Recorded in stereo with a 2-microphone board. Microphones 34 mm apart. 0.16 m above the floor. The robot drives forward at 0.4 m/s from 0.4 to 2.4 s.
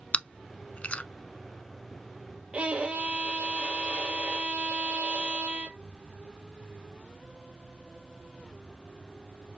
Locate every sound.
0.1 s chewing: 40° left (ahead or behind), 0.5 m
2.5 s a violin: 35° right (ahead or behind), 1.6 m